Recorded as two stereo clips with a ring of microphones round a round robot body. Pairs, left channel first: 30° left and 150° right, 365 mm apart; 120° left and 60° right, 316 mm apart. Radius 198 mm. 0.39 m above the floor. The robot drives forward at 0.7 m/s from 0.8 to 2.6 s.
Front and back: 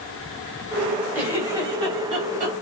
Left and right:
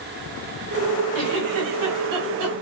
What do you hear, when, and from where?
1.1 s a giggle: 65° right, 3.5 m; by 2.6 s 85° right, 3 m